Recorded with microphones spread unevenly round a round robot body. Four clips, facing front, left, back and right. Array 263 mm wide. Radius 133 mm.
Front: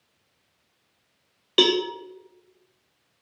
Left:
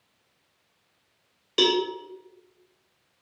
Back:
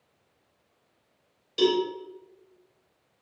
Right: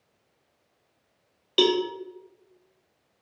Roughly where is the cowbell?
Ahead.